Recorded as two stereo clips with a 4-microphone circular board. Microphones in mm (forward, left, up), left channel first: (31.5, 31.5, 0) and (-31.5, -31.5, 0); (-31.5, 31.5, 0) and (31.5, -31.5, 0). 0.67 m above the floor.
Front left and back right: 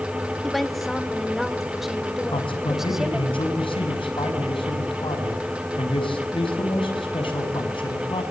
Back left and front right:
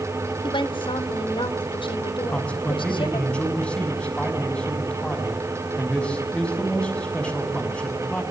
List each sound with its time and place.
0.4 s a woman speaking: 135° left, 1.8 m; by 3.3 s 140° left, 3.5 m
2.3 s a man speaking: 60° left, 6 m